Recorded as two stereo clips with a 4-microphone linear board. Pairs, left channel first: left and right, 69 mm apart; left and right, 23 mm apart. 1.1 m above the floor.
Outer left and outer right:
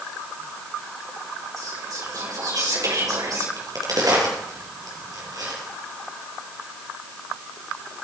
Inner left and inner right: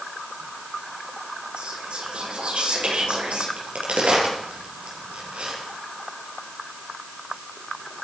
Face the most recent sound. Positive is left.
turn(degrees=-65)  # may be behind; listen again after turning